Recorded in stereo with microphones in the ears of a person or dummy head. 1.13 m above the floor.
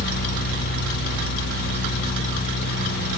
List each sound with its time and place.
Only background noise.